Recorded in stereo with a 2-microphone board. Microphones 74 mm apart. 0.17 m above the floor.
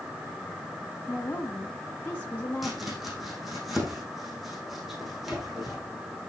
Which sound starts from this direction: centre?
Chopping, at 2.6 s.